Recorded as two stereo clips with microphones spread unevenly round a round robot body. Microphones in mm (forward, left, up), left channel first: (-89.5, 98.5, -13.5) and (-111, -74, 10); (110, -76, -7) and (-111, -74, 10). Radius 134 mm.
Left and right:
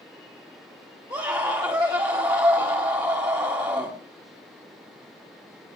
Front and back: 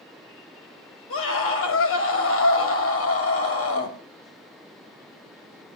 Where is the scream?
20° right, 4.5 m.